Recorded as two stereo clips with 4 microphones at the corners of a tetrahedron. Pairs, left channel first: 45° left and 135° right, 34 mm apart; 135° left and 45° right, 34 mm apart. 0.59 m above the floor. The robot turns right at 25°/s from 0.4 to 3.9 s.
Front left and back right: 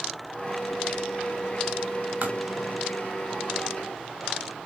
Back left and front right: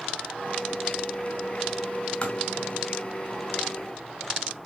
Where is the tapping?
165° right, 3.5 m; by 2.4 s 160° right, 3.5 m.